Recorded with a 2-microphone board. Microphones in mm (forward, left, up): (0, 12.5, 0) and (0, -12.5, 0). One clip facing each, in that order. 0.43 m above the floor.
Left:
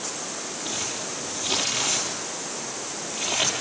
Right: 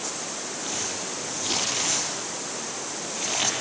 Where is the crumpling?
Centre (ahead or behind), 7.5 m.